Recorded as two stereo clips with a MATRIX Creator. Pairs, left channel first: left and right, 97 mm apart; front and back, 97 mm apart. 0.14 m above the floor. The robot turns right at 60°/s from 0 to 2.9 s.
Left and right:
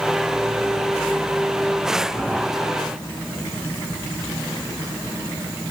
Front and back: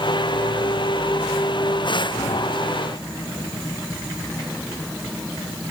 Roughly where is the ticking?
No ticking in this recording.